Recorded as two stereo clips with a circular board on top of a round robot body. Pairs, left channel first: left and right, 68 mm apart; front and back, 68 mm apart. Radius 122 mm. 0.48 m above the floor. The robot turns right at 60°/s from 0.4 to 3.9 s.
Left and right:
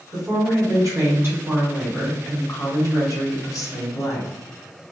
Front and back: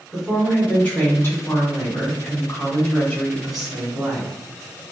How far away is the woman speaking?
About 2.0 m.